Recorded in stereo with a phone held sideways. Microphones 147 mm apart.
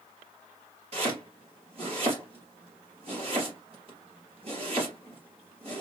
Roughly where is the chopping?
Right.